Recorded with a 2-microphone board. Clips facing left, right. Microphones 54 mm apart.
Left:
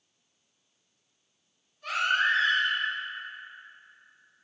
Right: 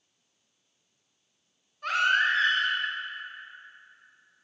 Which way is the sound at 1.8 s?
65° right (ahead or behind).